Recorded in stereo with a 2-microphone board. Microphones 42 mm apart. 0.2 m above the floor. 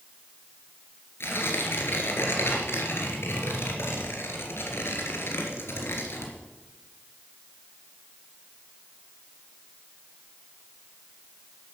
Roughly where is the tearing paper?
Left.